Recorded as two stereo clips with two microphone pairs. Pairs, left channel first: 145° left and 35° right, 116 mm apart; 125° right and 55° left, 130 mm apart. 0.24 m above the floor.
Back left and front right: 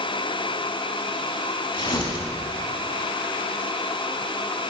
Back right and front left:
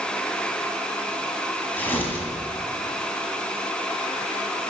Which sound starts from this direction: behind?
Tearing paper, at 1.7 s.